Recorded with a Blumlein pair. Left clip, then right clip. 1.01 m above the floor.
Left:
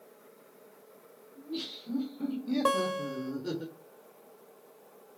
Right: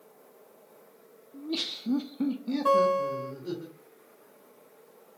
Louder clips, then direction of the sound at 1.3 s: Right 6 dB; 55° right.